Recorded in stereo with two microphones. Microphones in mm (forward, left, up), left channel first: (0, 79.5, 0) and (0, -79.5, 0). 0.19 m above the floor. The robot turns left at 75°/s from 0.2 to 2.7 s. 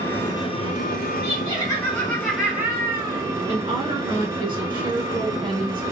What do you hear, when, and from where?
0.0 s an engine running: 165° left, 0.8 m; by 5.9 s 25° right, 0.8 m
1.2 s laughter: 25° left (ahead or behind), 1.8 m; by 3.2 s 15° right (ahead or behind), 1.8 m
3.5 s a woman speaking: 35° right (ahead or behind), 1.5 m